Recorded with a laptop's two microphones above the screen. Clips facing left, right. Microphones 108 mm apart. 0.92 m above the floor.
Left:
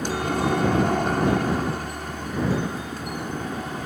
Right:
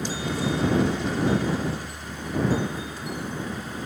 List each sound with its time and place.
0.0 s a helicopter: 60° left (ahead or behind)